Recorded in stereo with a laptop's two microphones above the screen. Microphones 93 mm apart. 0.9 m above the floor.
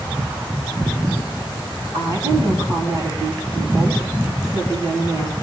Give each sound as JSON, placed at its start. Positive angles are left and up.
{"t": 1.9, "sound": "a woman speaking", "side_deg": -50, "distance_m": 6.0}